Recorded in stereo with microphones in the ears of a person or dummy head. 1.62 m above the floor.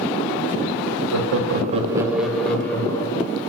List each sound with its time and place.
1.1 s laughter: 75° right (ahead or behind), 0.8 m; by 3.4 s 20° left (ahead or behind), 2.0 m